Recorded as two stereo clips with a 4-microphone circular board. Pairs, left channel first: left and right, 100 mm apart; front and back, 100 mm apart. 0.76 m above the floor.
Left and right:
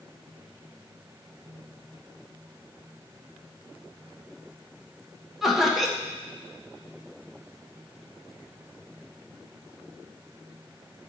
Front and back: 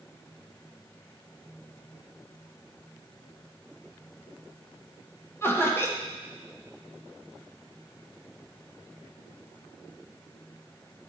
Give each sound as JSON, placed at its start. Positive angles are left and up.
{"t": 5.4, "sound": "laughter", "azimuth_deg": -5, "distance_m": 0.9}